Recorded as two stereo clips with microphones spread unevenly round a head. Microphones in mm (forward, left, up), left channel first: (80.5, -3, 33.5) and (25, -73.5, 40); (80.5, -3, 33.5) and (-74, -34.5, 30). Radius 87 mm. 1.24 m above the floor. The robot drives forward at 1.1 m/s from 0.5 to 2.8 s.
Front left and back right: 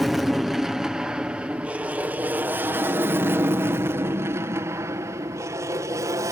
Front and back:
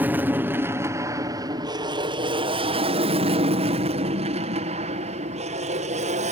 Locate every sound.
0.0 s an aircraft: 135° left; by 6.3 s 175° right